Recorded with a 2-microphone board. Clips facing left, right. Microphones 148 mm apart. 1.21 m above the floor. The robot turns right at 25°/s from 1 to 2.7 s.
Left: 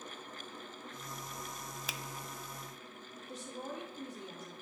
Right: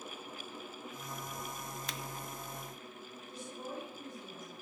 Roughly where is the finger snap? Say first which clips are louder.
Left 1 dB; centre.